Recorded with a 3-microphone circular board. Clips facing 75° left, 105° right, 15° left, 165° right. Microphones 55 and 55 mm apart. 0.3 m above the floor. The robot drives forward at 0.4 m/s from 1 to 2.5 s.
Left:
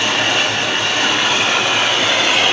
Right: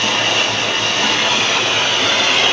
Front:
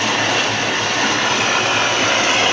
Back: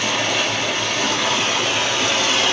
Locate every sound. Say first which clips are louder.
0.0 s running water: even, front 3 dB; straight ahead, 1.2 m; by 2.5 s 5° right, 0.7 m